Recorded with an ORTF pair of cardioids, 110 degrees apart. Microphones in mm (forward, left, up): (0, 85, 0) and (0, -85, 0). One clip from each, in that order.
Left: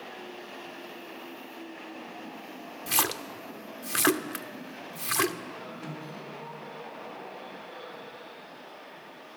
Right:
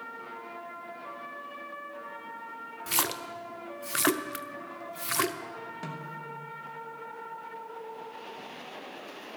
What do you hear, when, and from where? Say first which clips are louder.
2.9 s a splash: left 2 dB; 5° left, 0.6 m
5.8 s a snare drum: right 1 dB; 50° right, 3 m